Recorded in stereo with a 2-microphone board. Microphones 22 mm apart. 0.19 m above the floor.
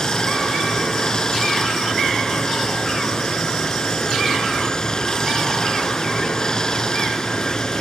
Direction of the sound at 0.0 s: 30° left (ahead or behind).